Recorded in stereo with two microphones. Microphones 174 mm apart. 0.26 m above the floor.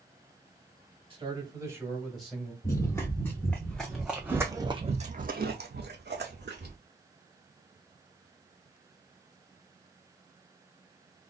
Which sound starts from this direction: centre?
Running footsteps, at 2.6 s.